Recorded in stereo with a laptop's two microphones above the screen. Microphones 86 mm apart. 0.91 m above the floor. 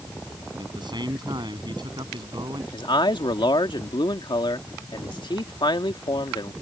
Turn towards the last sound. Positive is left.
turn(degrees=65)  # may be behind; listen again after turning